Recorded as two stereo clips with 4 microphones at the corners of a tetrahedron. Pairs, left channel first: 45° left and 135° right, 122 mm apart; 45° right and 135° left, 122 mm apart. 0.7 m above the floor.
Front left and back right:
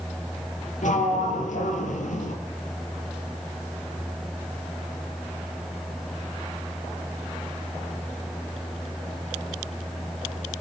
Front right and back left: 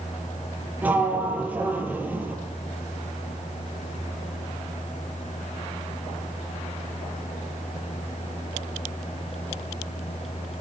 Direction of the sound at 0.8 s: 60° left.